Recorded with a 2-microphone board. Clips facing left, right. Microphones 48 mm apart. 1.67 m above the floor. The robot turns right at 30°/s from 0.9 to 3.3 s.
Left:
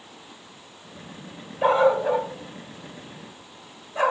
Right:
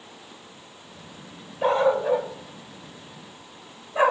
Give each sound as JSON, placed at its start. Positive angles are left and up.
{"t": 1.6, "sound": "a dog barking", "side_deg": 15, "distance_m": 1.6}